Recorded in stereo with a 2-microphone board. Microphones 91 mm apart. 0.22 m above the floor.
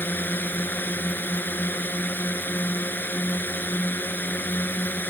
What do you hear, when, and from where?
0.0 s a drone: 20° left (ahead or behind)